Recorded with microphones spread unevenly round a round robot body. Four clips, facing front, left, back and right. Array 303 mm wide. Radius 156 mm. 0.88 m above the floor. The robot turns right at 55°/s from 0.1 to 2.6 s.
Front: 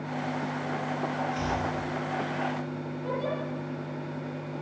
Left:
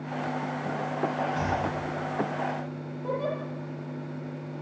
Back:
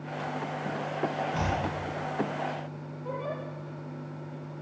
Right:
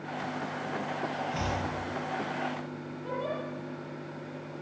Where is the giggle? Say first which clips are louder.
Left 4 dB, front 3 dB; 80° left, 7 m.